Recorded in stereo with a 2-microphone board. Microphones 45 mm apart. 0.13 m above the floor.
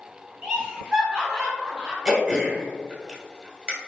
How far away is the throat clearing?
About 1.1 m.